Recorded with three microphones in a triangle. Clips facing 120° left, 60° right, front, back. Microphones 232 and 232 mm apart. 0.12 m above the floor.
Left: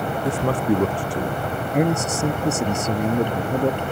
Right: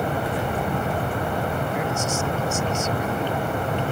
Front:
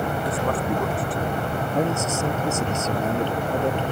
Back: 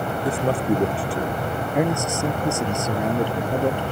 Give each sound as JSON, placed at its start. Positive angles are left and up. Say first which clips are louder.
{"t": 0.2, "sound": "a man speaking", "louder": "left 5 dB, back 7 dB", "azimuth_deg": 120}
{"t": 1.7, "sound": "a man speaking", "louder": "left 5 dB, back 2 dB", "azimuth_deg": 105}